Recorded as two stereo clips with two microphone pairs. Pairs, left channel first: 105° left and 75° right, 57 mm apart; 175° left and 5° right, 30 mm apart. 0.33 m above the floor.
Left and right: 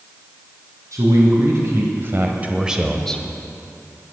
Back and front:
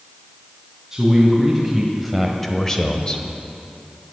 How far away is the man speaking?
About 3 m.